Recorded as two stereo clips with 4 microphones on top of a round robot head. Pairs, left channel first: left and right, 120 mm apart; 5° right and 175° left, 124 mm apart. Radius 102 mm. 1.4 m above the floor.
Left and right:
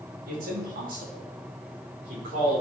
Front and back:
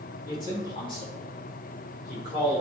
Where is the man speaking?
75° right, 2.5 m; by 2.6 s 60° right, 4.5 m.